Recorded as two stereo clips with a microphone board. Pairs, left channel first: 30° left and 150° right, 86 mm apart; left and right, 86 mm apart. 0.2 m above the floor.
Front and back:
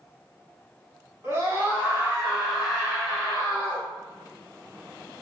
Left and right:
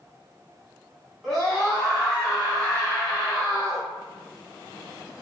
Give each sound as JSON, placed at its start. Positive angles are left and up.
{"t": 1.2, "sound": "a scream", "azimuth_deg": 180, "distance_m": 1.5}